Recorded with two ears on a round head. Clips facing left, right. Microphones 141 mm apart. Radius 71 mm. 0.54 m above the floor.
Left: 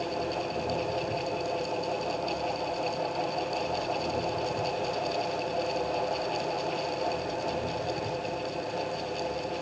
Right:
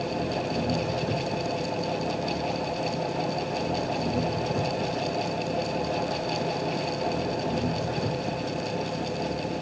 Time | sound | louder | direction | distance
0.0 | an engine running | right 3 dB | 55° right (ahead or behind) | ?